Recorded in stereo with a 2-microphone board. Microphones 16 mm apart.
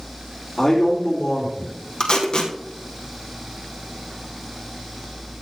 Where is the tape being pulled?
50° left (ahead or behind), 2.5 m.